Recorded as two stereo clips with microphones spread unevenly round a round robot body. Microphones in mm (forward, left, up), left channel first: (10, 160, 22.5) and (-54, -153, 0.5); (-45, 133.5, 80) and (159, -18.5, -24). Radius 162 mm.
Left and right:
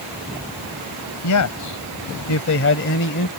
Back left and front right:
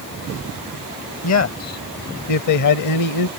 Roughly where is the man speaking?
Left.